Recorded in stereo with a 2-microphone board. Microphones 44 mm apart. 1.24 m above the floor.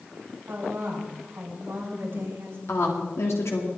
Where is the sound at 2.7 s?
75° left (ahead or behind), 3 m.